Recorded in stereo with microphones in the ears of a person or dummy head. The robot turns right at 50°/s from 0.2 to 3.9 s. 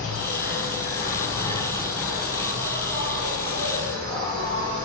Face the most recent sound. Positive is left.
turn(degrees=-80)